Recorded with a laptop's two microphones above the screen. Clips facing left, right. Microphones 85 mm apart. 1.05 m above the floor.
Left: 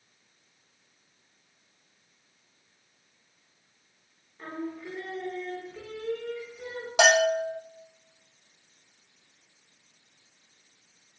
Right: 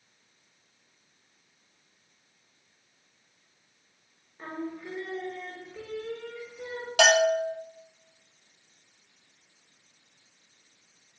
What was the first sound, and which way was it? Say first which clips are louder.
Singing: even; 10° right (ahead or behind).